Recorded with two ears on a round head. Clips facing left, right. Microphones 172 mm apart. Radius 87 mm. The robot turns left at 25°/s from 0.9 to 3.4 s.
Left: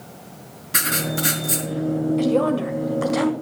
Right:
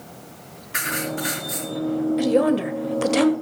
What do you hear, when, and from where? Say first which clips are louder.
0.7 s writing: left 2 dB; 50° left (ahead or behind), 3.5 m; by 1.7 s 70° left (ahead or behind), 3.5 m
2.2 s a woman speaking: right 2 dB; 10° right (ahead or behind), 1.7 m; by 3.3 s 35° right (ahead or behind), 1.7 m